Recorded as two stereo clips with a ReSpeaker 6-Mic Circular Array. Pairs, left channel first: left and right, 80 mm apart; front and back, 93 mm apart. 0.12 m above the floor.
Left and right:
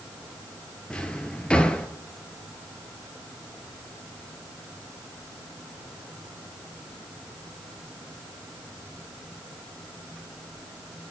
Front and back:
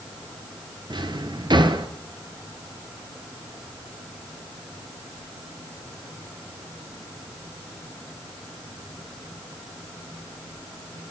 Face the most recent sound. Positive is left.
turn(degrees=165)